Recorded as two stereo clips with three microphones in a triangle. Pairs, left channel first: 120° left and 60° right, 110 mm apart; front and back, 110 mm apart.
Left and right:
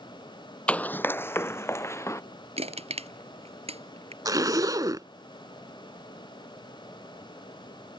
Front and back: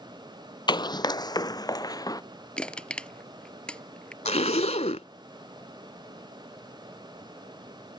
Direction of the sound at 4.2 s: 5° right.